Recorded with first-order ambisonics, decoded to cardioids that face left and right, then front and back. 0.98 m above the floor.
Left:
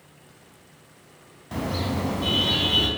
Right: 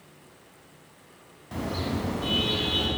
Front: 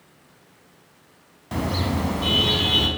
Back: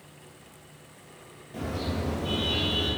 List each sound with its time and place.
1.5 s a car horn: 15° left, 5 m; by 2.9 s 20° left, 5.5 m